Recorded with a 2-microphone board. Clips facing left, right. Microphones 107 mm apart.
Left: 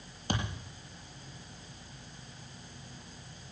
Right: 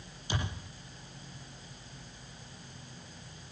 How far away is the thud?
About 6.5 m.